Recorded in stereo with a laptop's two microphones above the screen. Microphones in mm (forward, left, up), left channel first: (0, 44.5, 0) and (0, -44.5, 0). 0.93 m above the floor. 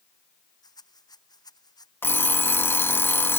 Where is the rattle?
45° left (ahead or behind).